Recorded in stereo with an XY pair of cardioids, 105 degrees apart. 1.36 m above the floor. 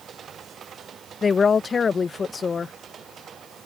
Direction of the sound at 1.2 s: 35° left.